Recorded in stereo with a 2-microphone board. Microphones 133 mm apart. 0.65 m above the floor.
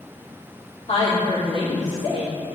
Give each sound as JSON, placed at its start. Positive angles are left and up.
{"t": 0.9, "sound": "a woman speaking", "side_deg": 50, "distance_m": 1.7}